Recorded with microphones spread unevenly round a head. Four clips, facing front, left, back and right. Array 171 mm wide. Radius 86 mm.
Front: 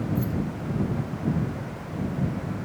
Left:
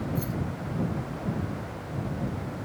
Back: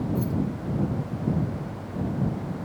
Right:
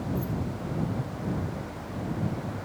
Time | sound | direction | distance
0.1 | keys jangling | 90° left | ?